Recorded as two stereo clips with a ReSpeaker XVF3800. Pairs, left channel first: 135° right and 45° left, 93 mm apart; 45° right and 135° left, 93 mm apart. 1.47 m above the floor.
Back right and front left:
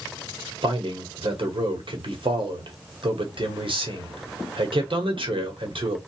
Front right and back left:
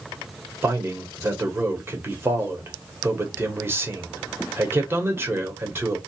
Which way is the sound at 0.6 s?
70° left.